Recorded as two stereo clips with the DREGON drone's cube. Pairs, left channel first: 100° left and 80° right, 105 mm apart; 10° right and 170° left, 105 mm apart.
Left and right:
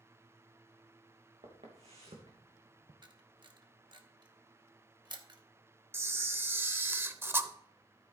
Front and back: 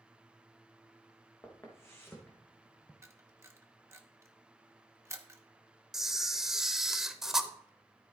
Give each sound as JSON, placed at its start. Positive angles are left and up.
{"t": 1.4, "sound": "footsteps", "azimuth_deg": -70, "distance_m": 3.0}
{"t": 3.0, "sound": "a camera shutter", "azimuth_deg": -125, "distance_m": 1.0}
{"t": 5.9, "sound": "a camera shutter", "azimuth_deg": -110, "distance_m": 0.7}